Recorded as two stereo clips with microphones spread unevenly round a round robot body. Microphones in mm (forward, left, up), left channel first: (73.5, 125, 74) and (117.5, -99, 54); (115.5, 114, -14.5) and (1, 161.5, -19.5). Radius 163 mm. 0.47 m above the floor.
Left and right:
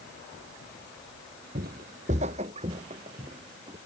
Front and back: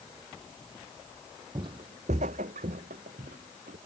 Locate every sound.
1.6 s footsteps: 140° right; by 3.8 s 155° right